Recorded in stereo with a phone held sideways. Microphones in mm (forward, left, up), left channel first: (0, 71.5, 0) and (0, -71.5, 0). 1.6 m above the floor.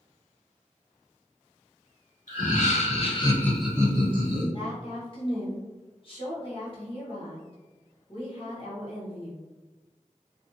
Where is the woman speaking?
40° left (ahead or behind), 1.0 m.